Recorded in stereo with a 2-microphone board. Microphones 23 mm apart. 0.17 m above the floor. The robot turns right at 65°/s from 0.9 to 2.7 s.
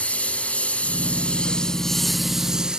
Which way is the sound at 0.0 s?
100° left.